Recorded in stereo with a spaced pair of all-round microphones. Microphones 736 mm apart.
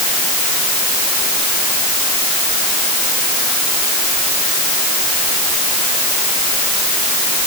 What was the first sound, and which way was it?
Only background noise.